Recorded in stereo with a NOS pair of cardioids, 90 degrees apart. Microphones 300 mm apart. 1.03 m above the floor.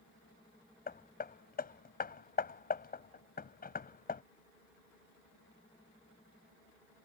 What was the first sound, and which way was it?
Hammering, 30° left.